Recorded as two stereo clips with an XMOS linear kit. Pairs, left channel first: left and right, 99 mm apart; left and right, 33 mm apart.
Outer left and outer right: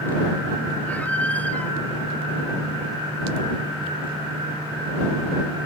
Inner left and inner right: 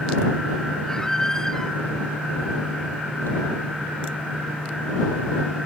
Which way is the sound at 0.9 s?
15° left (ahead or behind).